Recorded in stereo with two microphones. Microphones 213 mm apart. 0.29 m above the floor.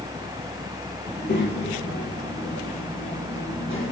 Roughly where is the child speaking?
Left.